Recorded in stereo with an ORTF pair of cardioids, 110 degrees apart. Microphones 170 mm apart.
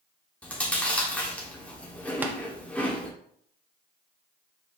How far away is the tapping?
About 0.5 m.